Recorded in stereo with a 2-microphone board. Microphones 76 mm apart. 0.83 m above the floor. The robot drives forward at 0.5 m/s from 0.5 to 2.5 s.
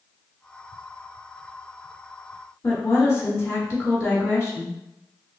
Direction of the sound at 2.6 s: 35° left (ahead or behind).